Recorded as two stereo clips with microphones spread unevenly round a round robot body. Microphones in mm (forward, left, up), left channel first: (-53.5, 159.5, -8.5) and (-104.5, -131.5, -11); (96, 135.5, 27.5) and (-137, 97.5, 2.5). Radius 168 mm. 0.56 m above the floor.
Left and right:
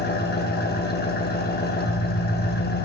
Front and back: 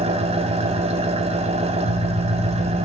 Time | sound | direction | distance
0.0 | an engine running | 135° left | 0.8 m